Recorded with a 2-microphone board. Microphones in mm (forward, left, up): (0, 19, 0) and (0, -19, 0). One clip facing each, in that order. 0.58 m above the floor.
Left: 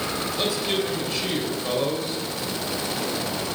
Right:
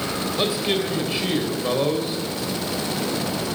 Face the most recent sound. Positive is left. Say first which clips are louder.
# right 3 dB
turn(degrees=-20)  # may be behind; listen again after turning